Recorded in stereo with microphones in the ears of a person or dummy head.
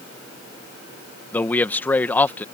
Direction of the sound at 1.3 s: 10° left (ahead or behind).